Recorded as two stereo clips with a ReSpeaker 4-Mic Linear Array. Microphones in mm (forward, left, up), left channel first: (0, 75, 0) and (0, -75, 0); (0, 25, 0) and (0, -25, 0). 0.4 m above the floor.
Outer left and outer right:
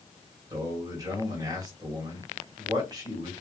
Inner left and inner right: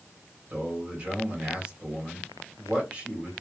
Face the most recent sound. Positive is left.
turn(degrees=-25)  # may be behind; listen again after turning